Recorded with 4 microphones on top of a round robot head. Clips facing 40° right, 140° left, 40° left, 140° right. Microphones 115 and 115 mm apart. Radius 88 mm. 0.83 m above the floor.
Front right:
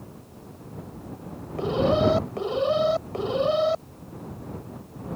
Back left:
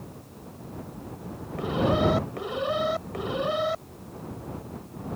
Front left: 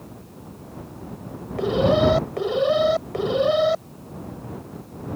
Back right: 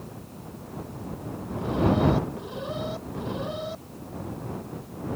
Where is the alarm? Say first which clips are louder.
Front right 3 dB, front left 5 dB; 25° left.